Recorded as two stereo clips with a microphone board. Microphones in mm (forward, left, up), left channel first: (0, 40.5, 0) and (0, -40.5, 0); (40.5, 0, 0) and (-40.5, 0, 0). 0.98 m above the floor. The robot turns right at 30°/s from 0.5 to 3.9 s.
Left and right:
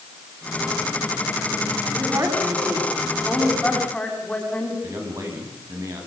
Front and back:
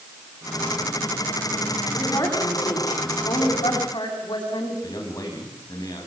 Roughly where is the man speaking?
Ahead right.